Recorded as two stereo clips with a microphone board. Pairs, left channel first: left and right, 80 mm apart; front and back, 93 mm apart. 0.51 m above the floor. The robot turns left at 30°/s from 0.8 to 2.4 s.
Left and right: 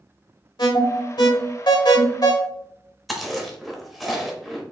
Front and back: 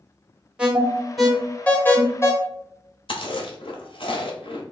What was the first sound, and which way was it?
An alarm, 100° left.